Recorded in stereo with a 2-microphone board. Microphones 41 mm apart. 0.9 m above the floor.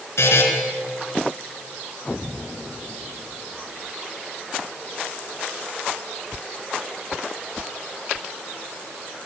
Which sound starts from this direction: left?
A buzzer, at 0.2 s.